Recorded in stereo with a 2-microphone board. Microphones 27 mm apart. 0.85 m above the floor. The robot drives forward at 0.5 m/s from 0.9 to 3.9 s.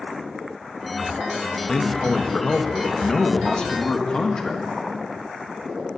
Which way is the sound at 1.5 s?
25° left (ahead or behind).